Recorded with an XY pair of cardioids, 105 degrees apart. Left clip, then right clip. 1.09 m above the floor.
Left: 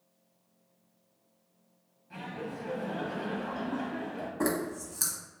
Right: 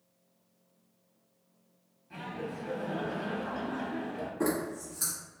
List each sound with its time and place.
2.1 s laughter: 5° right, 0.9 m
4.4 s a zipper: 50° left, 0.9 m